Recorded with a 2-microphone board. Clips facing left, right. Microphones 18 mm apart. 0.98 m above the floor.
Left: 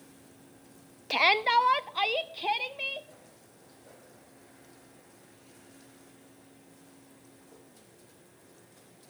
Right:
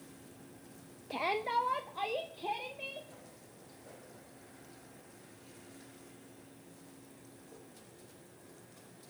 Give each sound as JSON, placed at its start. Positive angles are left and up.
{"t": 1.1, "sound": "a shout", "side_deg": 55, "distance_m": 0.5}